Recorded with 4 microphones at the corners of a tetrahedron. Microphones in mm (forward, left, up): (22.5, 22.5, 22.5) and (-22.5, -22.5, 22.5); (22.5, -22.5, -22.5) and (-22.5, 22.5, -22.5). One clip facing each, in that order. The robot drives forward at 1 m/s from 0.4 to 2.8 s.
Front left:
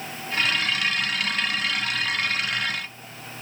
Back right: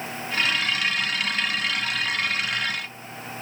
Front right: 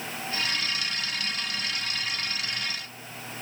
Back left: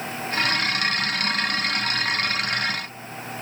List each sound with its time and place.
Only background noise.